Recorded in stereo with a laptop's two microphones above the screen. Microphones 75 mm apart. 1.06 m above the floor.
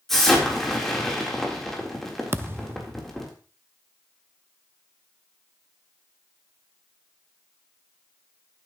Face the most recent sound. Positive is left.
turn(degrees=-30)  # may be behind; listen again after turning